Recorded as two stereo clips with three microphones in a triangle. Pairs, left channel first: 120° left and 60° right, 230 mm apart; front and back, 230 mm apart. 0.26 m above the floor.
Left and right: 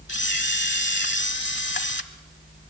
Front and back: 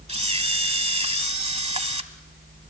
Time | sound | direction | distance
0.1 | a camera shutter | 125° left | 1.1 m